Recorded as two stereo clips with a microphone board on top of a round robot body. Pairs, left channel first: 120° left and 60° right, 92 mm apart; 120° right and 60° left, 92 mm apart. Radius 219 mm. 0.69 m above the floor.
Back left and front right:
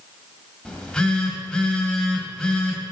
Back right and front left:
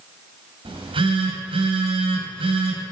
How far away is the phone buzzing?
About 1.5 m.